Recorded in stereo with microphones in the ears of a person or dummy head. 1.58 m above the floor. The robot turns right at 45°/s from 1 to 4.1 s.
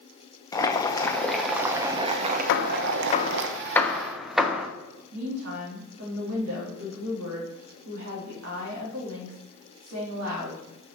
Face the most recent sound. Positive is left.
turn(degrees=-80)